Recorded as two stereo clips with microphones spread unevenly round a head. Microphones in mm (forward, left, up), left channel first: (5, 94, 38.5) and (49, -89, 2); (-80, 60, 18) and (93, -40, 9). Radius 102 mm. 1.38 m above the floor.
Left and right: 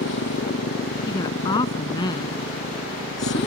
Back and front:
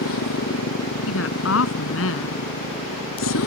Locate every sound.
0.0 s a motorcycle: 140° left
1.1 s a woman speaking: 175° left